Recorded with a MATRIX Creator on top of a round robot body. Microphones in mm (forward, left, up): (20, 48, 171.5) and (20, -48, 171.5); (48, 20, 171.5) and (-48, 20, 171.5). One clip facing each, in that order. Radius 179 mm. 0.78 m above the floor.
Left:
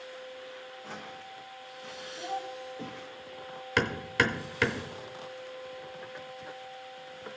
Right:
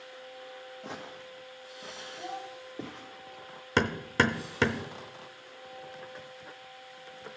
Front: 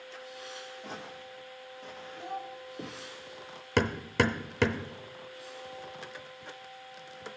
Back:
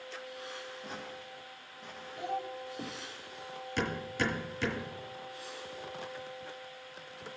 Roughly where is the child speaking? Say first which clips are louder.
Left 4 dB, back 3 dB; behind.